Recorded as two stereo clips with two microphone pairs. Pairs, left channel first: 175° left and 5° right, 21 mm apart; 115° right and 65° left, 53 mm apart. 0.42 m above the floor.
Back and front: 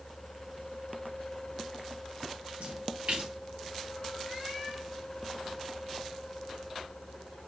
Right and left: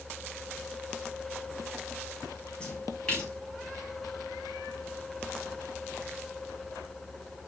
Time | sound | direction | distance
2.6 | a splash | 40° right | 4.5 m